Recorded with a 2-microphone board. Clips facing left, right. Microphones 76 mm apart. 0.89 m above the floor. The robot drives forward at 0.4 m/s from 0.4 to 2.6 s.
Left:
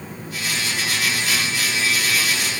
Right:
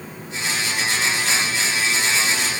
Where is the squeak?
No squeak in this recording.